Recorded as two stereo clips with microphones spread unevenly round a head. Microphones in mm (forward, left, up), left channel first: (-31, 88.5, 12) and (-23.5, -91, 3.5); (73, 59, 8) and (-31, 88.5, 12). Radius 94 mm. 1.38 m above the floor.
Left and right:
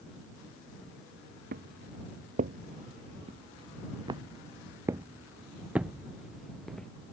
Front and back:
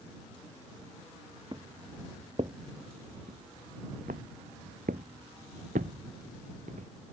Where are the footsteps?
125° right; by 6.9 s straight behind.